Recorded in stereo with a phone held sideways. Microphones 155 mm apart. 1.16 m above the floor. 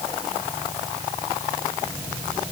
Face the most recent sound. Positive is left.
No sound to turn to.